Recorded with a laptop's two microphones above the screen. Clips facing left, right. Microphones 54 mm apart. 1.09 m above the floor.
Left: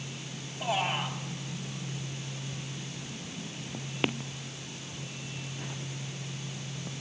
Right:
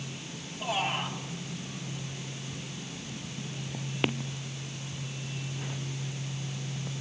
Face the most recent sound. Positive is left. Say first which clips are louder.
# left 1 dB
turn(degrees=20)  # may be behind; listen again after turning